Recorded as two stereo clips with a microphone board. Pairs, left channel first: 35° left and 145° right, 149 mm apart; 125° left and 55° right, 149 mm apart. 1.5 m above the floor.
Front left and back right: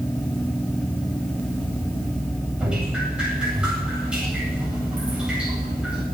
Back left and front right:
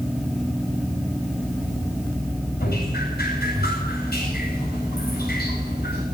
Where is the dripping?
130° left, 9 m.